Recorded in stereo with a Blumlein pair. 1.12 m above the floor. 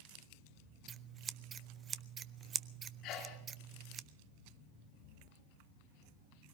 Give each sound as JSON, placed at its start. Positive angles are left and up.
{"t": 0.9, "sound": "scissors", "azimuth_deg": -25, "distance_m": 0.5}
{"t": 3.0, "sound": "a sneeze", "azimuth_deg": 35, "distance_m": 2.0}